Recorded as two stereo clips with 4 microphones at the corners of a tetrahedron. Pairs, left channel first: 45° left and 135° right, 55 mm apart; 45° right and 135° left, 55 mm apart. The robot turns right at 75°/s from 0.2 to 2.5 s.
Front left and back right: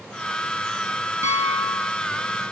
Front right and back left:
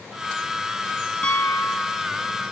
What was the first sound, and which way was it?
A piano, 110° right.